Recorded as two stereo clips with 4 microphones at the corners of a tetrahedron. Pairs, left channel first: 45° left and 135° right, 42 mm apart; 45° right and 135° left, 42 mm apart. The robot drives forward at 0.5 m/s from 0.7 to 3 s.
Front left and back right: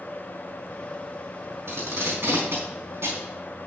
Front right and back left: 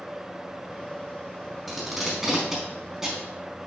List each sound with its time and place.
1.7 s tape being pulled: 135° right, 4 m; by 3.2 s 145° right, 4.5 m